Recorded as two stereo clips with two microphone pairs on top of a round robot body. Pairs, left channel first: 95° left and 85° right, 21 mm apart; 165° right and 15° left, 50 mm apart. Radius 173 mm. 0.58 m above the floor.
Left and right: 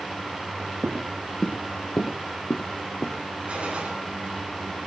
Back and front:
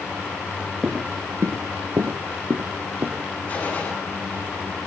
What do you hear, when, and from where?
0.8 s footsteps: 85° right, 0.7 m; by 3.2 s 60° left, 3 m
3.5 s a gunshot: 100° right, 10 m